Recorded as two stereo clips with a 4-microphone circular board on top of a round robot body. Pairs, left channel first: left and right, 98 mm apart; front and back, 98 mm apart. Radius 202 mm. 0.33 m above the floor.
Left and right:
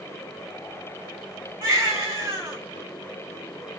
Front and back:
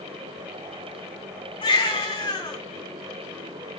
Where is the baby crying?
30° right, 3.5 m.